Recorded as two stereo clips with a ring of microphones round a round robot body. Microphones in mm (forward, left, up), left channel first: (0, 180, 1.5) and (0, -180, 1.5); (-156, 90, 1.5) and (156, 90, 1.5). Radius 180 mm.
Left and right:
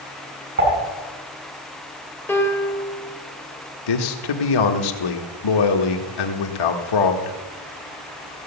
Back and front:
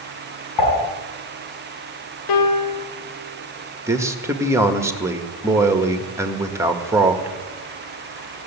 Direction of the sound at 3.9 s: 80° left.